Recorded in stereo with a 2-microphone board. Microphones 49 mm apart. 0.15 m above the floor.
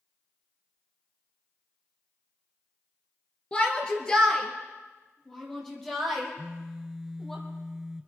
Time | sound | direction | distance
3.5 | a shout | 20° left (ahead or behind) | 2 m
6.4 | a phone buzzing | 15° right (ahead or behind) | 0.7 m